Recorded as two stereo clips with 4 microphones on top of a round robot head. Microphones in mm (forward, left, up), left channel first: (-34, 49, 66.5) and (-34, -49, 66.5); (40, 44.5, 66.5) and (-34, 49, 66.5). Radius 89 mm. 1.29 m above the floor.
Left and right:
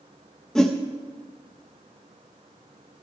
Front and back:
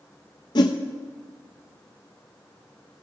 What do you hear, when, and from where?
0.6 s a whoosh: 5° left, 0.6 m